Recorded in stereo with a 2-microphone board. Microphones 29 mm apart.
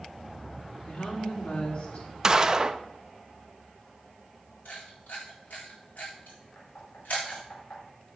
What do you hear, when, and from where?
0.9 s a woman speaking: 55° left (ahead or behind), 3.5 m
2.2 s a gunshot: 20° right (ahead or behind), 0.6 m
4.7 s a camera shutter: 85° left, 6.5 m
6.5 s knocking: 90° left, 5 m